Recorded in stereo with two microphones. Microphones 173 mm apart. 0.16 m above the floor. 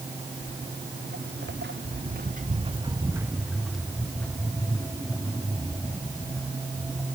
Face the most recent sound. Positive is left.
turn(degrees=20)  # may be behind; listen again after turning